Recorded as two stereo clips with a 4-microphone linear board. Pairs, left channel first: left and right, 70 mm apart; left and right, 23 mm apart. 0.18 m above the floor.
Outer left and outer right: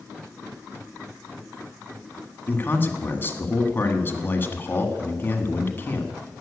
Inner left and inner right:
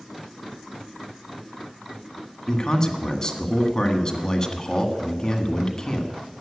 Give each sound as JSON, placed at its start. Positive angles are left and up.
{"t": 2.5, "sound": "a man speaking", "side_deg": 30, "distance_m": 1.6}